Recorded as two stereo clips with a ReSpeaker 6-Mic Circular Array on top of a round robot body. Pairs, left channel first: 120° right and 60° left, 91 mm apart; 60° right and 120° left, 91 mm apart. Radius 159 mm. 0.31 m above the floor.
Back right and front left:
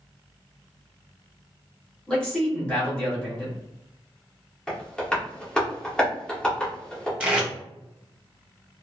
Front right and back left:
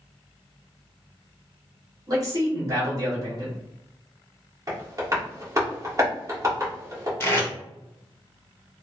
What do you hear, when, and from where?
2.1 s a man speaking: 160° left, 1.8 m
4.7 s tapping: 160° left, 1.7 m
7.2 s tape being pulled: 10° right, 1.5 m